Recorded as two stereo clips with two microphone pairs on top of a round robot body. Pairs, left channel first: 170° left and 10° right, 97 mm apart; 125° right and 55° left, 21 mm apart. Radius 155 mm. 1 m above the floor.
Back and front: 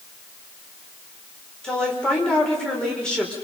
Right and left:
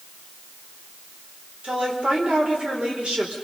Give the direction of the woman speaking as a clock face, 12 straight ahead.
9 o'clock.